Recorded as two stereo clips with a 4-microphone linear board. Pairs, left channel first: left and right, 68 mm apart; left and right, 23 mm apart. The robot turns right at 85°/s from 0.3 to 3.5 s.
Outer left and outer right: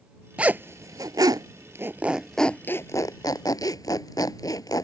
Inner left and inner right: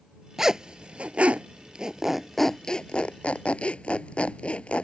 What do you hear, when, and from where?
0.4 s a zipper: 15° right (ahead or behind); by 4.8 s 70° left (ahead or behind)